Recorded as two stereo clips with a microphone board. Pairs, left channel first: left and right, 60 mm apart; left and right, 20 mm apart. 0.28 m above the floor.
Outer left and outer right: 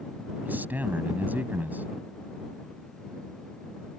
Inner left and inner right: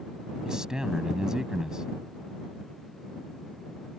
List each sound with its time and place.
0.5 s a man speaking: 30° right (ahead or behind)